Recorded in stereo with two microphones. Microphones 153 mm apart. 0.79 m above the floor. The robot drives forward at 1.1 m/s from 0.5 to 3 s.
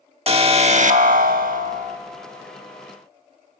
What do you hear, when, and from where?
0.3 s an alarm: 40° right (ahead or behind), 1.3 m; by 2.0 s 45° right (ahead or behind), 1.1 m